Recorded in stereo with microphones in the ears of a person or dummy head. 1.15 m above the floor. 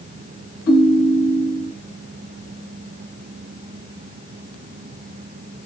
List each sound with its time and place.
0.7 s a ringtone: 70° left (ahead or behind), 1.6 m